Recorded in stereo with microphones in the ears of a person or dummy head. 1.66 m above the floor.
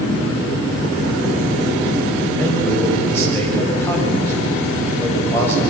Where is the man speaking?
15° left (ahead or behind), 7.5 m.